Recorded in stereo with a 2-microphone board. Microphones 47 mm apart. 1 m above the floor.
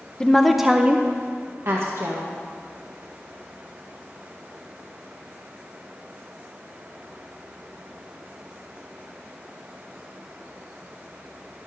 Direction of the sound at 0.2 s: 15° left (ahead or behind).